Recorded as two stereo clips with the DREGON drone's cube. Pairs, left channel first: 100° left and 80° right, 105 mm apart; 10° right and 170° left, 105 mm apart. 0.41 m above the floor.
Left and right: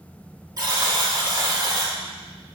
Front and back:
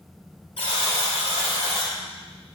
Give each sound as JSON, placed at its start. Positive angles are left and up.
{"t": 0.6, "sound": "a buzzer", "azimuth_deg": -30, "distance_m": 1.1}